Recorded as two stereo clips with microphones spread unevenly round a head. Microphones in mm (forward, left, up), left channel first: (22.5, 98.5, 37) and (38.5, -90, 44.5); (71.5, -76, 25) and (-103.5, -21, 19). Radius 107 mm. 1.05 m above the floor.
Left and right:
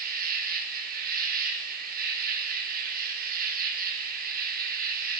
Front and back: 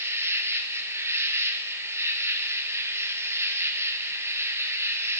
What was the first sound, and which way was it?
An insect, 125° right.